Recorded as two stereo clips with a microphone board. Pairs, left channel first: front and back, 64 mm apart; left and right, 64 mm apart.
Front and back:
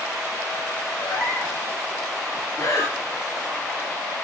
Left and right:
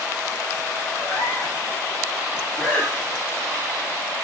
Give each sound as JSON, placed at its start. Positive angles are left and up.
{"t": 1.0, "sound": "a cat meowing", "azimuth_deg": 20, "distance_m": 5.0}
{"t": 2.6, "sound": "breathing", "azimuth_deg": 20, "distance_m": 3.0}